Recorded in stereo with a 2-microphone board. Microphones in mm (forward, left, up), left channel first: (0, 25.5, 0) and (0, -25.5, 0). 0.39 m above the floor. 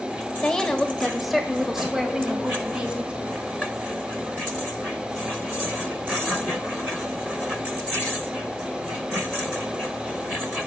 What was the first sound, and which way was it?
A woman speaking, 15° left (ahead or behind).